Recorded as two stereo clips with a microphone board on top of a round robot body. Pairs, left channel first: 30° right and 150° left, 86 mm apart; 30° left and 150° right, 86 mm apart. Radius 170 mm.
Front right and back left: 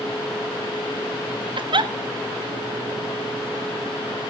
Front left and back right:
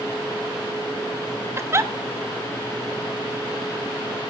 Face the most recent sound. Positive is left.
turn(degrees=155)